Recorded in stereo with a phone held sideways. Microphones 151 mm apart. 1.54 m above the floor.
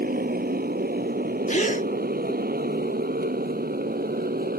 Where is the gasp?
55° left (ahead or behind).